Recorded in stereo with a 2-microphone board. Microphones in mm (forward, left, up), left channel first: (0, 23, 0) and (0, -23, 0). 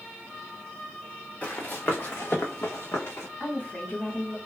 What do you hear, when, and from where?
1.4 s running footsteps: 40° left (ahead or behind), 1.1 m; by 3.3 s 75° left (ahead or behind), 1.4 m
3.4 s a woman speaking: 50° left (ahead or behind), 1.8 m